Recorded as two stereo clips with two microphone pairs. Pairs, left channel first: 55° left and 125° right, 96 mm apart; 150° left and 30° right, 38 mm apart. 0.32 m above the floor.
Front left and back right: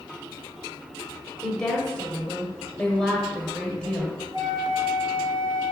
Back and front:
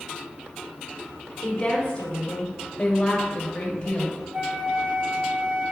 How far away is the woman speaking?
About 1.0 m.